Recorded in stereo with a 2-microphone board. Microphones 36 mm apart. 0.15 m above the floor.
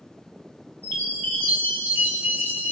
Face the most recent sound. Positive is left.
turn(degrees=60)  # may be behind; listen again after turning